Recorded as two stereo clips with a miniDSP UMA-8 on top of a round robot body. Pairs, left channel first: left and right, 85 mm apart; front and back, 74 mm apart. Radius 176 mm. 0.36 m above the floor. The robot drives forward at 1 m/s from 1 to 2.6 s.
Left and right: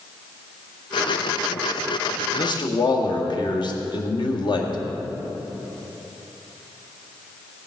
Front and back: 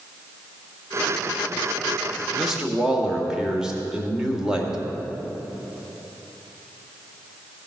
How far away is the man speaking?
About 1.7 m.